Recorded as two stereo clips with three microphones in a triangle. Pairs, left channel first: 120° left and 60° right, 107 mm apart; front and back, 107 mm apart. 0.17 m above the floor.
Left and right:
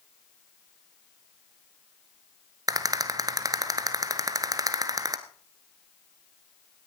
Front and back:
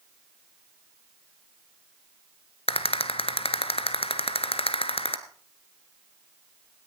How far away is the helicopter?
I don't hear a helicopter.